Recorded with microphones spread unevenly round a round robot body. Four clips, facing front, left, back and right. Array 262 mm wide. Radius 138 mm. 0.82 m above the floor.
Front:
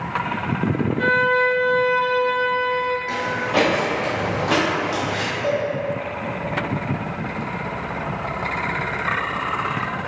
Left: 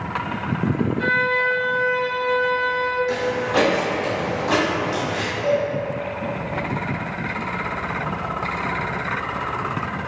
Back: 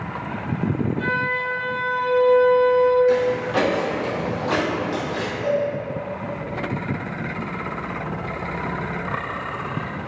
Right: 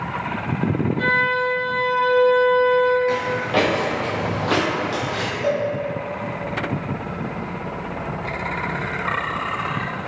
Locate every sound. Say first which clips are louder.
1.0 s a violin: right 1 dB, front 6 dB; 40° right, 1.0 m
3.1 s footsteps: even, back 3 dB; 60° right, 1.0 m; by 5.3 s 50° right, 2 m
5.4 s a cowbell: left 1 dB, back 1 dB; 85° right, 1.5 m